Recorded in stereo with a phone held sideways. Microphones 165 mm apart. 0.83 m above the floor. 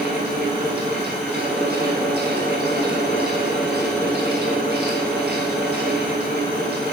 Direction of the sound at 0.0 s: 75° right (ahead or behind).